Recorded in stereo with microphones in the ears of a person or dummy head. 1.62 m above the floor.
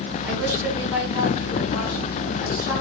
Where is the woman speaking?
15° right (ahead or behind), 7 m.